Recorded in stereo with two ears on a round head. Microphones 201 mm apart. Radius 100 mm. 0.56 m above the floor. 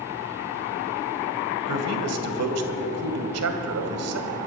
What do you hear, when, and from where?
1.7 s a man speaking: 75° right (ahead or behind), 2.5 m